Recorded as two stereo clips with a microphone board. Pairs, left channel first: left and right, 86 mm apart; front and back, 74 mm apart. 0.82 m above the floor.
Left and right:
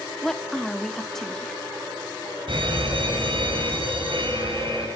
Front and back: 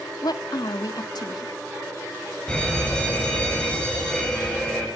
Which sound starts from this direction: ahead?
A woman speaking, at 0.2 s.